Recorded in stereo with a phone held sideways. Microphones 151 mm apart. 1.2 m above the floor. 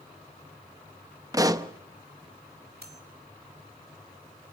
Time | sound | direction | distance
1.3 | a pop | 25° right (ahead or behind) | 0.8 m
2.8 | cutlery clinking | 85° right | 2.5 m